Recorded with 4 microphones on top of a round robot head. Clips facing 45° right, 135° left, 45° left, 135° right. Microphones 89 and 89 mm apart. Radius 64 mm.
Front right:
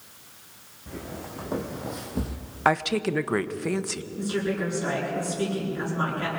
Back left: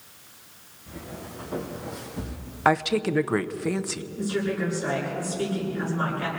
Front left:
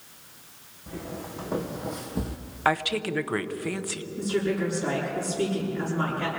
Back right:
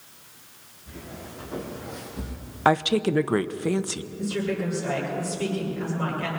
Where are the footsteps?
Straight ahead, 3.5 m.